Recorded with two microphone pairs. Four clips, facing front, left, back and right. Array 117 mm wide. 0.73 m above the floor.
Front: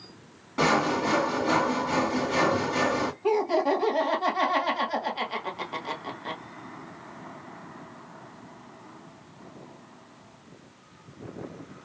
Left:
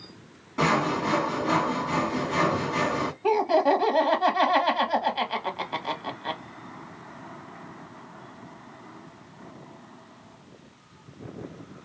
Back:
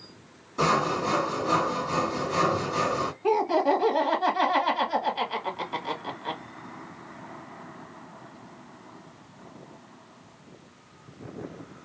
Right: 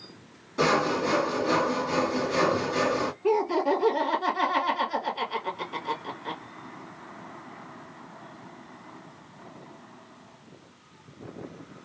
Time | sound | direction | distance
0.6 | sawing | 10° left | 2 m
3.2 | laughter | 75° left | 1.4 m